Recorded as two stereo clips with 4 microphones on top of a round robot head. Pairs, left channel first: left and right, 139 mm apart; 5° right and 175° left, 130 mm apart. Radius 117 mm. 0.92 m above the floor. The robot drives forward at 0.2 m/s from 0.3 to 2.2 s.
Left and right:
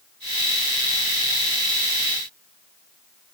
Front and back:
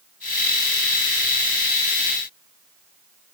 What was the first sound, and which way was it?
Only background noise.